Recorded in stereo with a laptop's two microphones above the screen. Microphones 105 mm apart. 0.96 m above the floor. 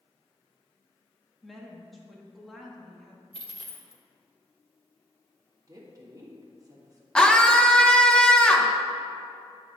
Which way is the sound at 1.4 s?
Centre (ahead or behind).